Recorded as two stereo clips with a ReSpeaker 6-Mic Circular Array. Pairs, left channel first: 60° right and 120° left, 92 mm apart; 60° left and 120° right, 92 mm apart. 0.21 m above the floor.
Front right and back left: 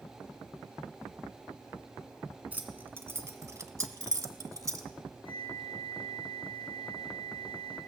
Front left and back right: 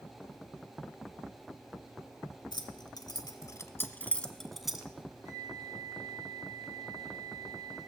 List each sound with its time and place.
2.5 s keys jangling: 55° left, 1.5 m; by 4.9 s 160° left, 1.3 m
5.2 s a flute: 65° right, 6 m